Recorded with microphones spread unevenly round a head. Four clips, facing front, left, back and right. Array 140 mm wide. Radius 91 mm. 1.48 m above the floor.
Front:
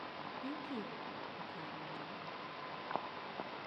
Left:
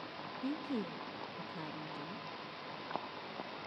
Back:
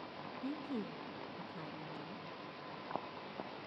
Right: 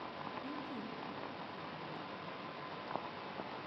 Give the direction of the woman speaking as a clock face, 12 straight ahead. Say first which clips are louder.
Left 5 dB, back 3 dB; 8 o'clock.